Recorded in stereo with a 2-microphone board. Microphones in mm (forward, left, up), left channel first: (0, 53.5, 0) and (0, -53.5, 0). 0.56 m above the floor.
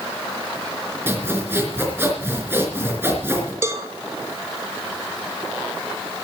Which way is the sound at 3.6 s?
25° right (ahead or behind).